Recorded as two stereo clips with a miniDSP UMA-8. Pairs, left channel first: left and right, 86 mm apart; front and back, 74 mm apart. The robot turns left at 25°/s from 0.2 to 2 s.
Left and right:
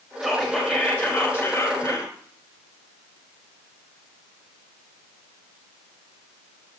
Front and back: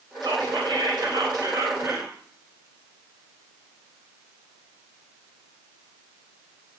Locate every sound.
0.2 s whispering: 175° left, 3 m; by 2.1 s 130° left, 3 m